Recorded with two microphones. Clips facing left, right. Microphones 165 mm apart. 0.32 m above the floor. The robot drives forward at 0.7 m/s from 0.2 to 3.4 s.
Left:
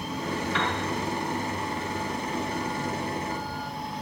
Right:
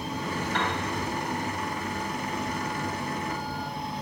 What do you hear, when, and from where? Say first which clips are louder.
0.5 s a piano: right 1 dB; 60° right (ahead or behind), 3.5 m